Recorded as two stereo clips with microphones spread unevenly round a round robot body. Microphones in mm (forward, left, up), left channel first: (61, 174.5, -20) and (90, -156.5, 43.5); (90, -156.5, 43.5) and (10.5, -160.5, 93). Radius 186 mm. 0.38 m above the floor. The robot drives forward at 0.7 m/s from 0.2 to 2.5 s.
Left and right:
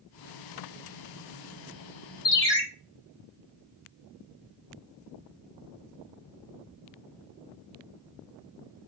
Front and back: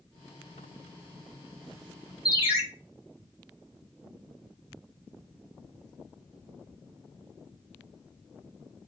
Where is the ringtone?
140° left, 0.5 m; by 2.6 s 150° left, 0.7 m.